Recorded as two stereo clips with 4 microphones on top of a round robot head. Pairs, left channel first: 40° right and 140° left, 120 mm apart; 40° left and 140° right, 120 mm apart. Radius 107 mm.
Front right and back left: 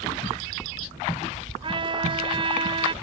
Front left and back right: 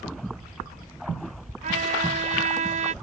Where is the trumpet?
170° right.